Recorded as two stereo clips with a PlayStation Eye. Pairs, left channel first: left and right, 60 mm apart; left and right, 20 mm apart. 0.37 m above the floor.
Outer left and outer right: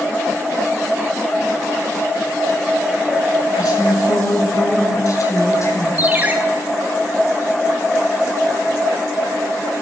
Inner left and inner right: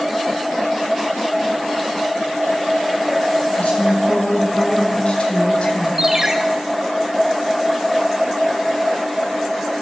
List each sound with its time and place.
3.5 s a woman speaking: 70° left (ahead or behind), 6 m; by 5.9 s 50° left (ahead or behind), 3.5 m
6.0 s a ringtone: 25° right (ahead or behind), 1.8 m